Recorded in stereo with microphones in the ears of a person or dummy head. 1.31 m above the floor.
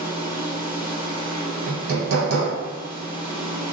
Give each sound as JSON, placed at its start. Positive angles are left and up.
{"t": 0.0, "sound": "a machine running", "side_deg": -25, "distance_m": 1.2}
{"t": 1.7, "sound": "hammering", "side_deg": -75, "distance_m": 1.0}